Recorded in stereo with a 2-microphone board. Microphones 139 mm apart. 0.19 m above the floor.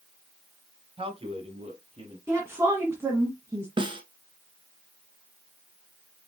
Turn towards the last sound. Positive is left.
turn(degrees=-40)  # may be behind; listen again after turning